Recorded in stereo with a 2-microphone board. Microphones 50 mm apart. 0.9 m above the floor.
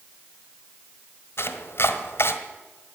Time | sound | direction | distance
1.4 | chopping | 55° left (ahead or behind) | 1.3 m